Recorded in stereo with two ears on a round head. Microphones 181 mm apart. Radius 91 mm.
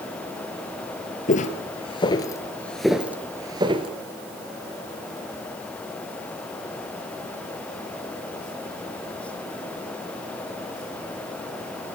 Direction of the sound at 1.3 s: 40° left (ahead or behind).